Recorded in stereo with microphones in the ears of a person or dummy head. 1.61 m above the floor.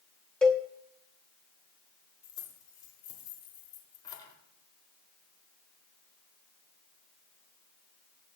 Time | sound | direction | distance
0.4 | a cowbell | 5° left (ahead or behind) | 0.9 m
2.2 | keys jangling | 20° left (ahead or behind) | 3.5 m